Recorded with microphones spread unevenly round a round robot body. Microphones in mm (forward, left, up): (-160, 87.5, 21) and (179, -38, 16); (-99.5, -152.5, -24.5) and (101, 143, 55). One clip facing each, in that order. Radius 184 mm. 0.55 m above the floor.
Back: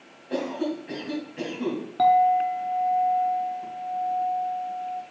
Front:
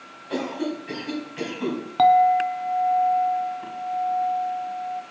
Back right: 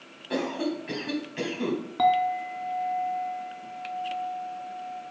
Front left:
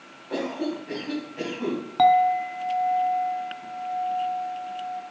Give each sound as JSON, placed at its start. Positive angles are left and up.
{"t": 0.3, "sound": "a cough", "azimuth_deg": -85, "distance_m": 3.5}
{"t": 2.0, "sound": "a clink", "azimuth_deg": -30, "distance_m": 0.5}